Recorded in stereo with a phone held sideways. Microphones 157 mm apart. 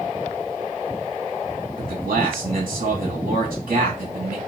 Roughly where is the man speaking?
Right.